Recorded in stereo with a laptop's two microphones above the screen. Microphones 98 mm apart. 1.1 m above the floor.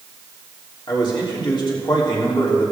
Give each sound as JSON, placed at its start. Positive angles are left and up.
{"t": 0.9, "sound": "a man speaking", "side_deg": 55, "distance_m": 3.0}